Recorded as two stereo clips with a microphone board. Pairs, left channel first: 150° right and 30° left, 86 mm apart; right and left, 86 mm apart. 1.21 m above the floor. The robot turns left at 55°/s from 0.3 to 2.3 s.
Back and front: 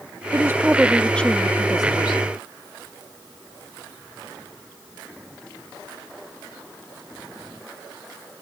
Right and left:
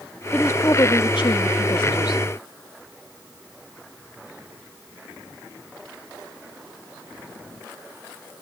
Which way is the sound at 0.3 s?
25° right.